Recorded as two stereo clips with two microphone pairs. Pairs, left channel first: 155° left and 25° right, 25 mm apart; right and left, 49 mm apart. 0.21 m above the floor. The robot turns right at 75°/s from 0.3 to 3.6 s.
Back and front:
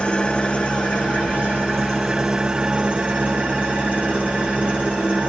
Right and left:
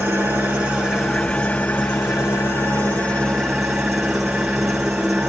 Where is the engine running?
115° left, 4.5 m; by 5.3 s straight ahead, 4.5 m.